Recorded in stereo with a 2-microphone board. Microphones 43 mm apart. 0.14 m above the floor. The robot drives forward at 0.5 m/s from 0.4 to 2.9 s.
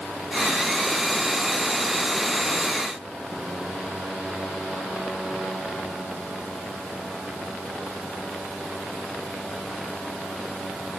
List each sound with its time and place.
Only background noise.